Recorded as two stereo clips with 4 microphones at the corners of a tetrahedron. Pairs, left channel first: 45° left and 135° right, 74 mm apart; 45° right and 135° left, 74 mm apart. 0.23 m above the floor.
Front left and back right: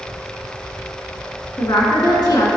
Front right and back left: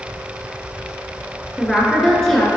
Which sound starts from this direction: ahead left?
A woman speaking, at 1.6 s.